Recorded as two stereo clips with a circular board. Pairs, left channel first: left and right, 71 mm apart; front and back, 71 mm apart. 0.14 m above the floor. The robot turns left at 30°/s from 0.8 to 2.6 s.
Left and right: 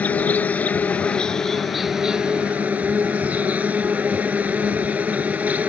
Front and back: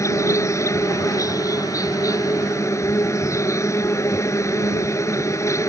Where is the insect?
25° left; by 5.7 s 25° right.